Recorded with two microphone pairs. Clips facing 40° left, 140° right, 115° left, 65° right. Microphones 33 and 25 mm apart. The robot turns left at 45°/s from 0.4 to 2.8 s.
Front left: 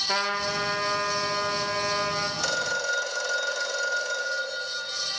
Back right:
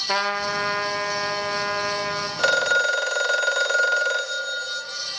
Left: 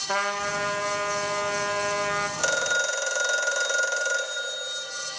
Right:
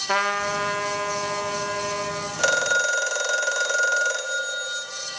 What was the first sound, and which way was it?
A trumpet, 90° right.